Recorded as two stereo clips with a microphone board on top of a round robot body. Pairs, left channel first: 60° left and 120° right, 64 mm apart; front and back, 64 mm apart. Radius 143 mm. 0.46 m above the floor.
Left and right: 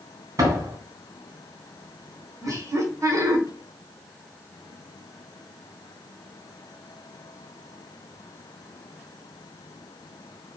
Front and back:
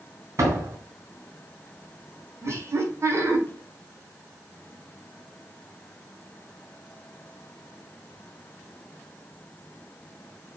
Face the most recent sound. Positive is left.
turn(degrees=-140)